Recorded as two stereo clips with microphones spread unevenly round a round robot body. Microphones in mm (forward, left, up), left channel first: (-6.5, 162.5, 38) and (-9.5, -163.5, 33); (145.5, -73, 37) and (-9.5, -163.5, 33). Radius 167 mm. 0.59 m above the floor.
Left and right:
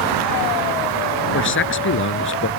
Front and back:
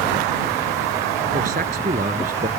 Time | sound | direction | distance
1.3 | a man speaking | 145° left | ?